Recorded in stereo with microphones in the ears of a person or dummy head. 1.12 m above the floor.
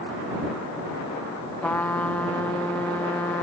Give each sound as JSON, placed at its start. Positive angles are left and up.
{"t": 1.6, "sound": "a trumpet", "side_deg": 5}